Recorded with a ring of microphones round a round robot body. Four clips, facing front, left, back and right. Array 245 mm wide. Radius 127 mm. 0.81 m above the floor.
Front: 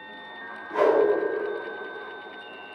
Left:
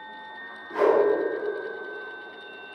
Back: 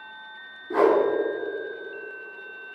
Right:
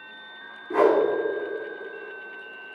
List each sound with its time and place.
0.7 s a whoosh: 135° right, 2.5 m